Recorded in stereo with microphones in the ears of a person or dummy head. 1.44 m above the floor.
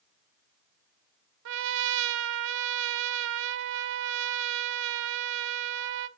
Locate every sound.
1.4 s a trumpet: 60° right (ahead or behind), 0.6 m